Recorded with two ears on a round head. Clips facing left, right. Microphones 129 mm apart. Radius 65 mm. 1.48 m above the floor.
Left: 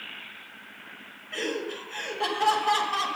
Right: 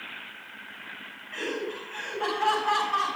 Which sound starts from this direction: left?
Laughter, at 1.3 s.